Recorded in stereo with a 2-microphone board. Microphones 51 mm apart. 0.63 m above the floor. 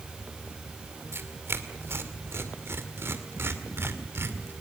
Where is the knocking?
I don't hear knocking.